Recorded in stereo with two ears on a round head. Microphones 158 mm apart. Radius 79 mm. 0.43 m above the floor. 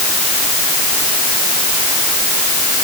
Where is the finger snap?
I don't hear a finger snap.